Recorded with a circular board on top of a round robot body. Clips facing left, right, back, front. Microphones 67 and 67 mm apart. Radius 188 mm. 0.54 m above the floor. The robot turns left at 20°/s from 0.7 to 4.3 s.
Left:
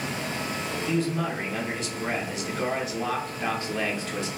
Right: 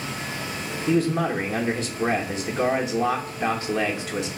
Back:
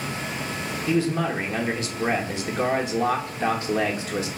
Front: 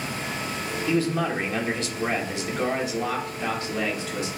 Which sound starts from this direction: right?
A man speaking, at 0.9 s.